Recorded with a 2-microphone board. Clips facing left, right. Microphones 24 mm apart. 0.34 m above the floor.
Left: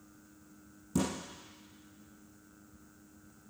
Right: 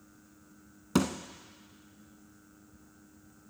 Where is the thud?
85° right, 1.0 m.